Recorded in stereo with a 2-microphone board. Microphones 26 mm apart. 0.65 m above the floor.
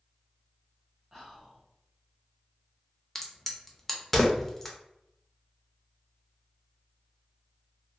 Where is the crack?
15° left (ahead or behind), 0.5 m.